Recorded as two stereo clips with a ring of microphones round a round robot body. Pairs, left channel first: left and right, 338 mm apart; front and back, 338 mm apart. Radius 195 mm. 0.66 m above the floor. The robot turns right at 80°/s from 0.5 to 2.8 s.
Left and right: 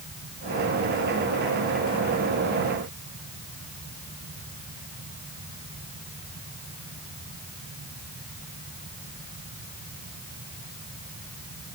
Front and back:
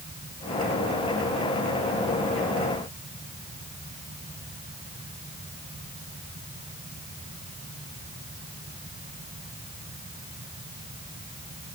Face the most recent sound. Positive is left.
No sound to turn to.